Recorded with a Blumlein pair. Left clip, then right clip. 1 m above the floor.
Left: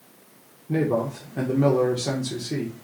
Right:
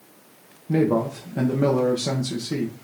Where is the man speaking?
5° right, 0.5 m.